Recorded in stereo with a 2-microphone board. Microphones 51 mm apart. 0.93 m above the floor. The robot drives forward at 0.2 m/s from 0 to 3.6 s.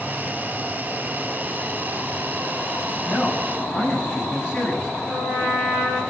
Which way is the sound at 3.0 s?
30° left (ahead or behind).